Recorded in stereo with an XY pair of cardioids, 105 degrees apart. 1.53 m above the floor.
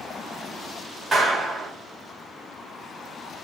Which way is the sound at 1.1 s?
40° right.